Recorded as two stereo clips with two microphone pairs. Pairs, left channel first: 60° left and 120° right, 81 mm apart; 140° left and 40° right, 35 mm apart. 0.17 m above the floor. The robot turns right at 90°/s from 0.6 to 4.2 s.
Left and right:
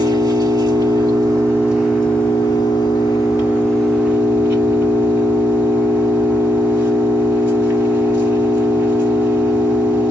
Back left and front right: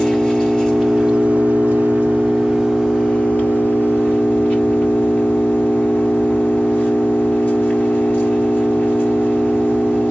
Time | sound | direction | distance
0.0 | an engine running | 145° right | 3 m